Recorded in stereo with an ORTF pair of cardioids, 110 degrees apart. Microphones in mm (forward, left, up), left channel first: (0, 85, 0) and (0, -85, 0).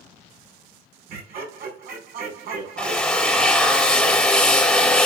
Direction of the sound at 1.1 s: 65° right.